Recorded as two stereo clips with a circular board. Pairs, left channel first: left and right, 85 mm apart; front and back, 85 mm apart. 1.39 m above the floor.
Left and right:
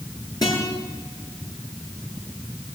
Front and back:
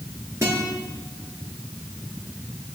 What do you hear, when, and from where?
0.4 s a guitar: 125° left, 6.5 m